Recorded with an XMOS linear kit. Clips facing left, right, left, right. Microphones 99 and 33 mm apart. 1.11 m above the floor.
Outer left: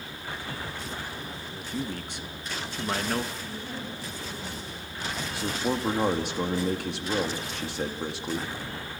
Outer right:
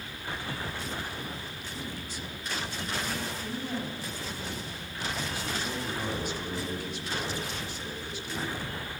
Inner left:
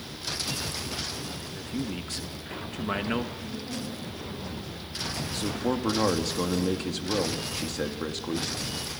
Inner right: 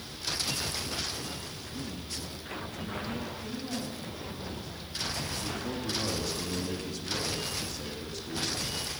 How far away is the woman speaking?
About 8.5 m.